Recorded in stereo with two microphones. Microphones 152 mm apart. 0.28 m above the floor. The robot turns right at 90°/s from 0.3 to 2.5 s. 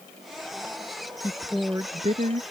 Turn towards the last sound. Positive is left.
turn(degrees=-95)